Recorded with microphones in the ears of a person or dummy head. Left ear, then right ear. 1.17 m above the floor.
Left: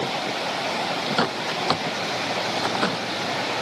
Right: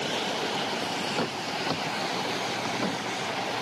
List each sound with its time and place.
1.2 s a bird: 55° left (ahead or behind)